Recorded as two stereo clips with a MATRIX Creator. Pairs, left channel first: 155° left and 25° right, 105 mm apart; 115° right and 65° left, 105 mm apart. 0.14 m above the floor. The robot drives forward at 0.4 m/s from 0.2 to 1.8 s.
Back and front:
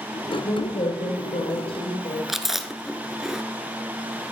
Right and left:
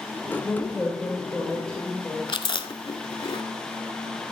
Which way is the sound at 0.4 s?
165° left.